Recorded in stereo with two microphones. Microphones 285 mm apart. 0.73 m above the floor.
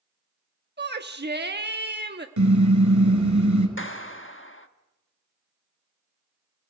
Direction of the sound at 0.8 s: 35° right (ahead or behind).